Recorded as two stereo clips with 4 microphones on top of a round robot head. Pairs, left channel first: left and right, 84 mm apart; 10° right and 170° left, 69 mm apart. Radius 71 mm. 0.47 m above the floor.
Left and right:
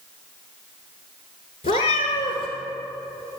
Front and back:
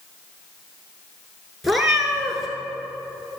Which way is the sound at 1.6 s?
80° left.